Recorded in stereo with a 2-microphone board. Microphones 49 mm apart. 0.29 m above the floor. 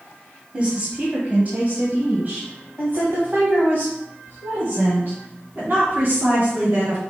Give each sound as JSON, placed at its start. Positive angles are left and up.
{"t": 0.5, "sound": "a woman speaking", "side_deg": -30, "distance_m": 1.7}